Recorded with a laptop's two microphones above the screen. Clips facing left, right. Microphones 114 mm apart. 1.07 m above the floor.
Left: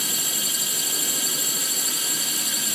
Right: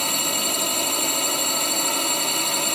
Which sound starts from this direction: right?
A drone, at 0.0 s.